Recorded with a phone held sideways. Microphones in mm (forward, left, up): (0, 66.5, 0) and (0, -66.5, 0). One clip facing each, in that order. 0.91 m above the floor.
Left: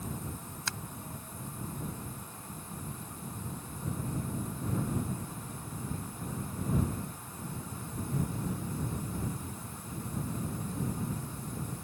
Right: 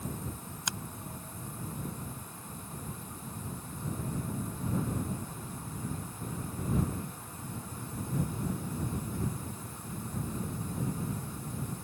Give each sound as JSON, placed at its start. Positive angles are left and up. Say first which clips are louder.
{"t": 0.7, "sound": "a finger snap", "louder": "right 1 dB", "side_deg": -15}